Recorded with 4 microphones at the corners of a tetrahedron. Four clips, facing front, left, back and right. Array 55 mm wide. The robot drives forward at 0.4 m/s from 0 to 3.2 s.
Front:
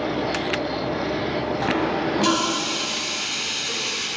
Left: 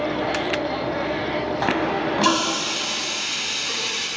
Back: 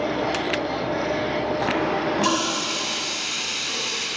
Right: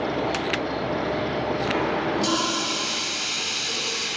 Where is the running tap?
100° left, 3 m; by 4.1 s 110° left, 3 m.